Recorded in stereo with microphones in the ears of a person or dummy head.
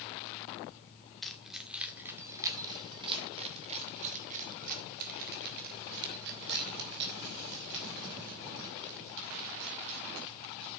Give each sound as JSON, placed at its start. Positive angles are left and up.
{"t": 1.2, "sound": "keys jangling", "side_deg": 5, "distance_m": 2.0}